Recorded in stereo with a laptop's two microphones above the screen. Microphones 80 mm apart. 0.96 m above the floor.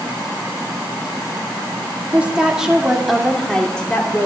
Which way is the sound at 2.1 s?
15° right (ahead or behind).